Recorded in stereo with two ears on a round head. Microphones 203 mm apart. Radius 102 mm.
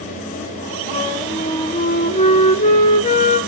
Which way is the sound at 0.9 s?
30° left (ahead or behind).